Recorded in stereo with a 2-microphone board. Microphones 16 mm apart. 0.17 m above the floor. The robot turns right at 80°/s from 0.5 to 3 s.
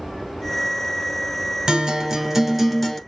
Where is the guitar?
95° right, 1.9 m; by 3.0 s 10° left, 1.9 m.